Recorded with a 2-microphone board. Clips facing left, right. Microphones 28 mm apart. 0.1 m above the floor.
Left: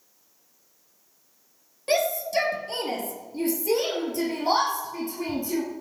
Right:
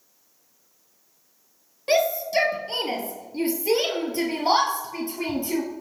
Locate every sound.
1.9 s a shout: 15° right (ahead or behind), 2.5 m; by 5.6 s 55° right (ahead or behind), 3 m